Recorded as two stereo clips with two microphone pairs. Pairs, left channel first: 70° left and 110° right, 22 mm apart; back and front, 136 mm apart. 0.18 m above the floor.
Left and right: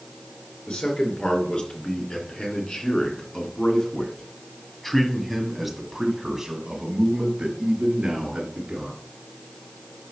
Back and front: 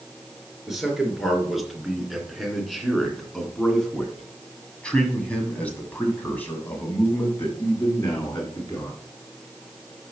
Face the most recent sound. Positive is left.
turn(degrees=-110)